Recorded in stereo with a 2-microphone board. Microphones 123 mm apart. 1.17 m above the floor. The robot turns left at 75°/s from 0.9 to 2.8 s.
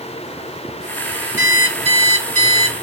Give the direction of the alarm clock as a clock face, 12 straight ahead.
1 o'clock.